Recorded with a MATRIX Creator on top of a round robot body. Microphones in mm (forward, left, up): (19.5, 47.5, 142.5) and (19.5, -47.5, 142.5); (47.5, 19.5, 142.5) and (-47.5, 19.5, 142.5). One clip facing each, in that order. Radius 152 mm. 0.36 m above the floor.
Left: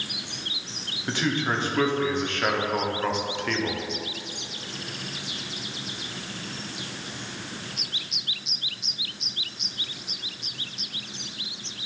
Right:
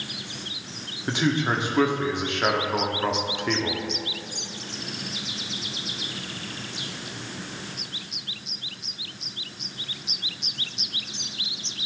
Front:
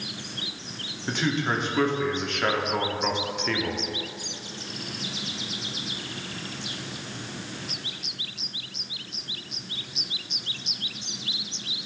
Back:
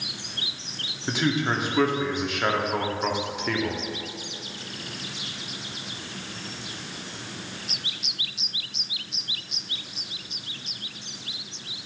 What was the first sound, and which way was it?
A man speaking, 115° right.